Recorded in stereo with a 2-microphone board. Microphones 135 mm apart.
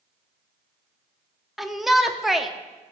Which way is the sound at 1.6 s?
Centre (ahead or behind).